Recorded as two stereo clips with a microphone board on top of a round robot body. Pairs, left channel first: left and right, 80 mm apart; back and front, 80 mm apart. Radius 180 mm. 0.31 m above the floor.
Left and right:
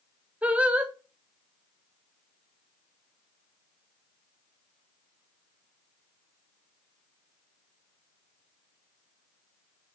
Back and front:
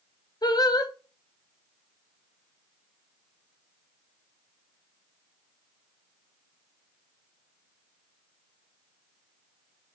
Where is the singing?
160° right, 1.6 m.